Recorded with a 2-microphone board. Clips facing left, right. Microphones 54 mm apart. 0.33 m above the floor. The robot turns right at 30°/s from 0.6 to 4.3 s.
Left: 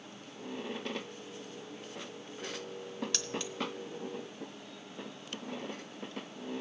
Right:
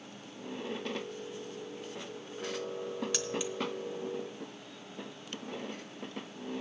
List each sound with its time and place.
3.1 s keys jangling: 5° right (ahead or behind), 0.9 m; by 3.5 s 10° right (ahead or behind), 0.9 m